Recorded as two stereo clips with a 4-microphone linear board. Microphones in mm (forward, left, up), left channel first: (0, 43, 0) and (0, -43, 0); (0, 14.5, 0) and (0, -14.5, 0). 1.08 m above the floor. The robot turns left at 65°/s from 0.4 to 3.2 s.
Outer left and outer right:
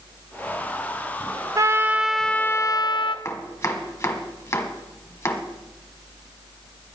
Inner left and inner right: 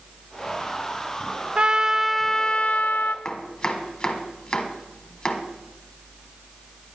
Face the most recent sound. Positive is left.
turn(degrees=30)  # may be behind; listen again after turning